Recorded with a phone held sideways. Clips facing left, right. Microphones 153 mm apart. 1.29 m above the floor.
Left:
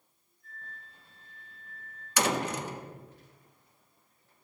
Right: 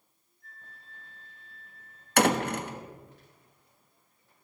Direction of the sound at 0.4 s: 75° right (ahead or behind).